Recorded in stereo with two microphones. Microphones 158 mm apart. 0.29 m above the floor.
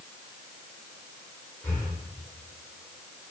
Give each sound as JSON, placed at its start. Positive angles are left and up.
{"t": 1.6, "sound": "breathing", "side_deg": 20, "distance_m": 5.0}